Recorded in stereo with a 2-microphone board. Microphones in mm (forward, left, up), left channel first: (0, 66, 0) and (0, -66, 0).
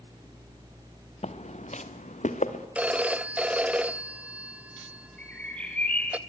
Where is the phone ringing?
10° right (ahead or behind), 0.5 m.